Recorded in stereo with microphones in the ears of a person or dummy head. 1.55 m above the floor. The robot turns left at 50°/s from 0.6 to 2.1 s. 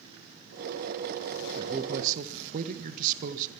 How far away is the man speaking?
About 1.7 m.